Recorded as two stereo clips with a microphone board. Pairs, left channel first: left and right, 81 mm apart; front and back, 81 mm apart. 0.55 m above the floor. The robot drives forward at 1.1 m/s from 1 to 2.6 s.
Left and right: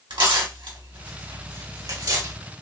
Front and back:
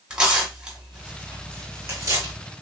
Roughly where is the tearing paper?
Right.